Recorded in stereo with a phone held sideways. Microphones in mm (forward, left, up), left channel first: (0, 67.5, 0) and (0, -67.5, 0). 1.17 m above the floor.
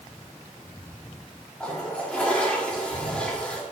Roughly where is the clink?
No clink in this recording.